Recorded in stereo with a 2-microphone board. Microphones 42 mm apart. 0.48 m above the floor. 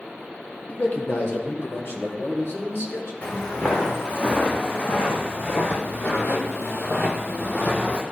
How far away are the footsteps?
About 2.5 m.